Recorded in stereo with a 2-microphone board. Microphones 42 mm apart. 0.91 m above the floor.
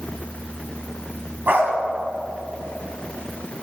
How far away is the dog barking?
About 3 m.